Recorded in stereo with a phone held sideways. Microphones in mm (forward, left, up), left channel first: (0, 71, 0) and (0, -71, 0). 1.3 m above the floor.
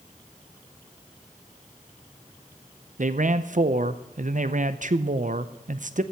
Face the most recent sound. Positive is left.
turn(degrees=-65)  # may be behind; listen again after turning